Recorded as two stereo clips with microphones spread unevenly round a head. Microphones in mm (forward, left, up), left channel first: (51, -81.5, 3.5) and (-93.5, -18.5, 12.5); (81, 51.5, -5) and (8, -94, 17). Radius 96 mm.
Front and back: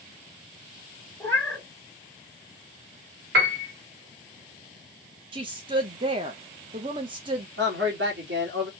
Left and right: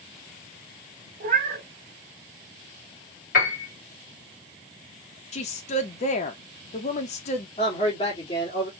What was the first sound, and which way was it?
A cat meowing, 105° right.